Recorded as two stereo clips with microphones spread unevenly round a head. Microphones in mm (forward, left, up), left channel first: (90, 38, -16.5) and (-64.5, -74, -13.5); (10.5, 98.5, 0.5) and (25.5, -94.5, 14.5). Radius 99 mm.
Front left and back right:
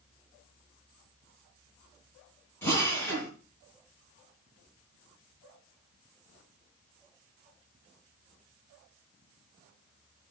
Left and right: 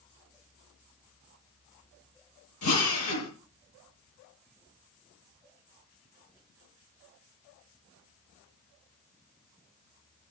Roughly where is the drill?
Behind left.